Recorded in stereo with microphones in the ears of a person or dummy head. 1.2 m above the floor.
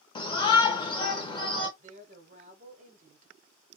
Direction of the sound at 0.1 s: 30° left (ahead or behind).